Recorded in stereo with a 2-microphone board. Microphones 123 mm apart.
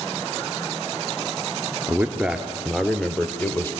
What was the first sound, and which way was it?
A man speaking, 15° right (ahead or behind).